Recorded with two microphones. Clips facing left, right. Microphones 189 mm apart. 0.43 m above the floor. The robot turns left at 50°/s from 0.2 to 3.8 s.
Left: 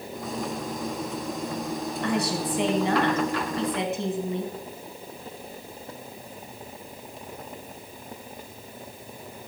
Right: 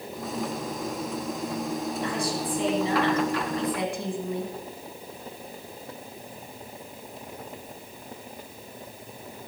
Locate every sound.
2.0 s a woman speaking: 110° left, 3.5 m; by 4.5 s 25° left, 3.5 m